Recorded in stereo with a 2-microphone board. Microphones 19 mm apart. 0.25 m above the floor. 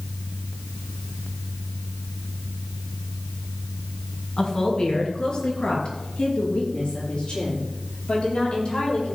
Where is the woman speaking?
30° left (ahead or behind), 2.5 m; by 9.2 s 50° left (ahead or behind), 8.5 m.